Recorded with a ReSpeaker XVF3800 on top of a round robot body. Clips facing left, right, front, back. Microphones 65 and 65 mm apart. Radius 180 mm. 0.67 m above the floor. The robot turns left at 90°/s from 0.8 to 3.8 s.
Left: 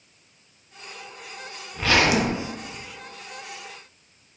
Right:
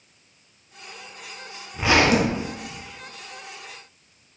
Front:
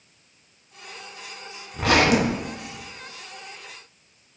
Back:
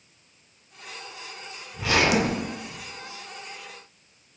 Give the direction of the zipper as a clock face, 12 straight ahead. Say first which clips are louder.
Right 2 dB, front 3 dB; 12 o'clock.